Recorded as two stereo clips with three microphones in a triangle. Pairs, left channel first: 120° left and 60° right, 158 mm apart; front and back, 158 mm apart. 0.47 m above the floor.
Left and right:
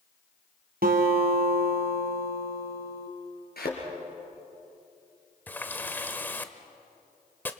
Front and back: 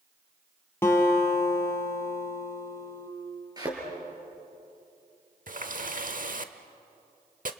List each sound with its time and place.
0.8 s a guitar: 75° right, 3 m
3.6 s a thud: 115° left, 4.5 m
5.5 s a running tap: 165° right, 1.0 m